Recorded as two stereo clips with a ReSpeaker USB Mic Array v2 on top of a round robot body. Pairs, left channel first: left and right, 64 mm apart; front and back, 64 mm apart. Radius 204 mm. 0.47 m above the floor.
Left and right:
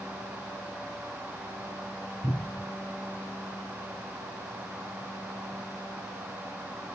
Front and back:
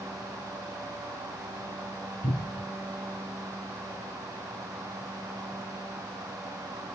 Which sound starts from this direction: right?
A cupboard door, at 2.2 s.